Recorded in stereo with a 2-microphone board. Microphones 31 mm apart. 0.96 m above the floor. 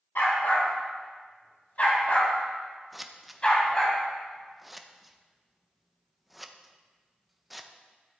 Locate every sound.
0.1 s a dog barking: 65° left (ahead or behind), 3.5 m; by 3.9 s 25° left (ahead or behind), 3 m
2.9 s scissors: 5° right (ahead or behind), 0.7 m